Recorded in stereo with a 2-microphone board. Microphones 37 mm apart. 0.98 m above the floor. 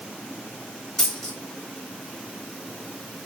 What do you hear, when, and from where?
1.0 s a dropped coin: 15° left (ahead or behind), 1.7 m